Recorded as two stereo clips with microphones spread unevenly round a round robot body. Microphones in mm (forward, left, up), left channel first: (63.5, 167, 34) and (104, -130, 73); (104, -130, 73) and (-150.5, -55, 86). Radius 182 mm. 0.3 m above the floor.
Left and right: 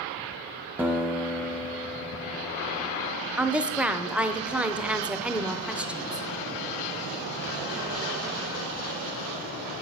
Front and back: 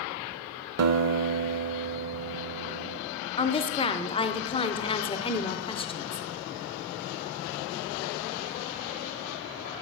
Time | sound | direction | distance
0.8 | a guitar | 170° right | 0.7 m
3.4 | a woman speaking | 15° left | 0.9 m